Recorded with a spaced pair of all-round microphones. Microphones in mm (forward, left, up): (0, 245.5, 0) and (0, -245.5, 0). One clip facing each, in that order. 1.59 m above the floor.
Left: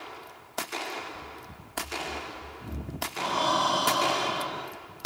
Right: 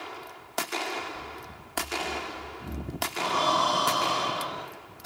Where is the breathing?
10° left (ahead or behind), 3 m.